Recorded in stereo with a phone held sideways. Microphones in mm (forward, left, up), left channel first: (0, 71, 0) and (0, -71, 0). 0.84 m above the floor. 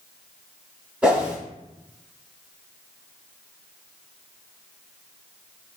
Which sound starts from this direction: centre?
A whoosh, at 1.0 s.